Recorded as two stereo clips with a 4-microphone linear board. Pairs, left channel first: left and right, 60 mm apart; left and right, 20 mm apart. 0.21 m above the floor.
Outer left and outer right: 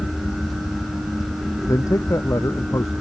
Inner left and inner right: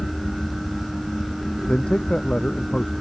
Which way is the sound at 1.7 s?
60° left (ahead or behind).